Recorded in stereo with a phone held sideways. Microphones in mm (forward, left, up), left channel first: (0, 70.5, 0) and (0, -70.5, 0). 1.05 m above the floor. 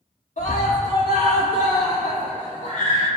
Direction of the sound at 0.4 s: 70° left (ahead or behind).